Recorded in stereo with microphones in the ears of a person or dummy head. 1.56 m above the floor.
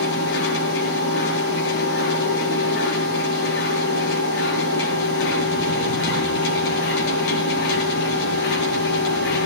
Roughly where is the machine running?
Left.